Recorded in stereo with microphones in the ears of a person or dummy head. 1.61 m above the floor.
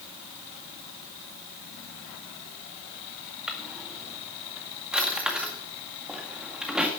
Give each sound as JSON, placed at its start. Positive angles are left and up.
{"t": 3.5, "sound": "a drawer", "side_deg": -10, "distance_m": 1.9}